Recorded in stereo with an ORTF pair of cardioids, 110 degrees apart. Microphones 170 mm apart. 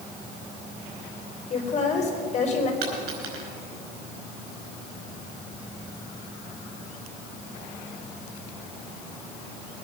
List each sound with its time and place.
1.5 s a woman speaking: 40° left, 4 m
2.8 s a dropped coin: 70° right, 4.5 m